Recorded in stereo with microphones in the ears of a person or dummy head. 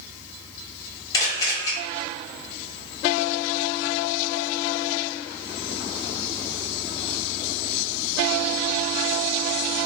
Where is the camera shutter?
20° left (ahead or behind), 1.7 m.